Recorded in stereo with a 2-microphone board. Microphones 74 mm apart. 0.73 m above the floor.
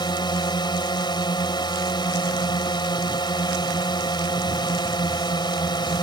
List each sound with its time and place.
0.0 s a drone: 75° left (ahead or behind)